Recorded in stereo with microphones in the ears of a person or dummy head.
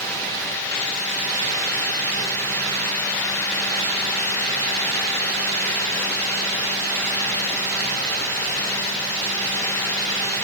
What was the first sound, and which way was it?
Only background noise.